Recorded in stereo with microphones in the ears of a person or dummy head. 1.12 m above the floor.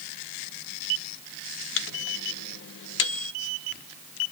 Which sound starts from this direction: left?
A microwave, at 1.8 s.